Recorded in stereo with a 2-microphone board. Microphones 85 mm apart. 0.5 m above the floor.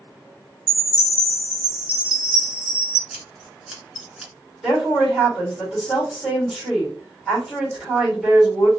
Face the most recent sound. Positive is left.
turn(degrees=0)  # may be behind; listen again after turning